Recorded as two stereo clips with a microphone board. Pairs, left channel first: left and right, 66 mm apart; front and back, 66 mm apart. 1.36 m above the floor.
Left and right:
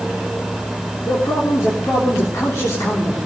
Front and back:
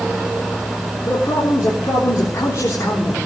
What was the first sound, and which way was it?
A man speaking, 50° left.